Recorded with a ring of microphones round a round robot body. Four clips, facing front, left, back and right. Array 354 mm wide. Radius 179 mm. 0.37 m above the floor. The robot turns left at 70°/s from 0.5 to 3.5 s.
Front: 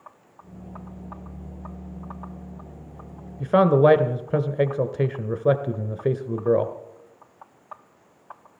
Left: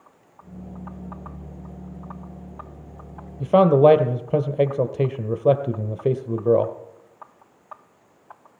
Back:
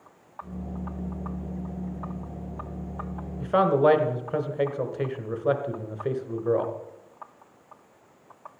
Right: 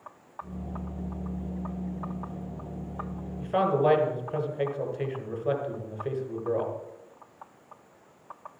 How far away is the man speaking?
About 1.4 m.